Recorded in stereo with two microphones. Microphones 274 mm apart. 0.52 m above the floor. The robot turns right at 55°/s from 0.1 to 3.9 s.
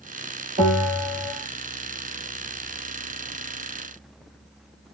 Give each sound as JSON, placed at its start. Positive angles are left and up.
{"t": 0.6, "sound": "a bell", "azimuth_deg": -60, "distance_m": 2.5}